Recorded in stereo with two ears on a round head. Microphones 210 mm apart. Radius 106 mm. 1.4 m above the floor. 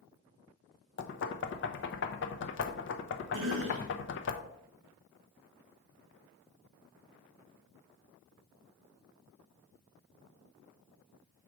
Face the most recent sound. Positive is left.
turn(degrees=-60)  # may be behind; listen again after turning